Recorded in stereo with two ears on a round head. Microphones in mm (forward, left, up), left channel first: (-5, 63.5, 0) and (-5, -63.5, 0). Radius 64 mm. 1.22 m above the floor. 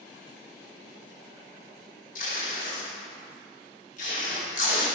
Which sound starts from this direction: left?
Tape being pulled, at 2.1 s.